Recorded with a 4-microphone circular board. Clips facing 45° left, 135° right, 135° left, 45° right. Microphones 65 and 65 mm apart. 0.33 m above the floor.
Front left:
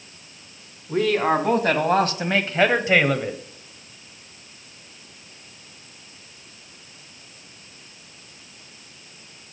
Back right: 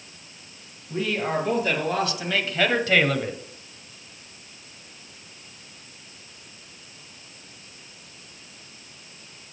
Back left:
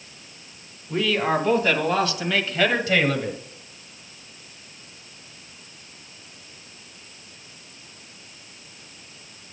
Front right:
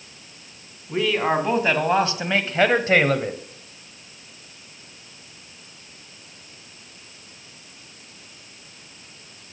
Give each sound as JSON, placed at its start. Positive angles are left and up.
{"t": 0.9, "sound": "a man speaking", "azimuth_deg": 30, "distance_m": 2.0}